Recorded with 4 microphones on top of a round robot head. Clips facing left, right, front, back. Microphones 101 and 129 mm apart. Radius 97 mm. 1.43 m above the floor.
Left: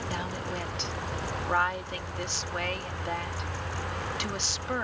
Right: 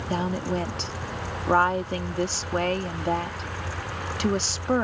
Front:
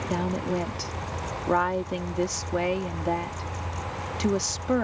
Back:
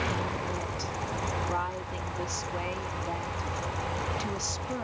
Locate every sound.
0.1 s a woman speaking: 40° right